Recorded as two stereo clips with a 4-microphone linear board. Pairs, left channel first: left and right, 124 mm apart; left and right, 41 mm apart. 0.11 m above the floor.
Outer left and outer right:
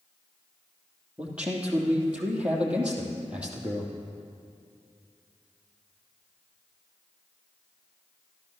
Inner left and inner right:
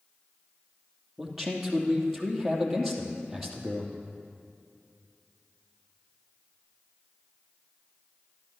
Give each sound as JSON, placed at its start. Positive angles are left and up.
{"t": 1.2, "sound": "a man speaking", "side_deg": -10, "distance_m": 3.0}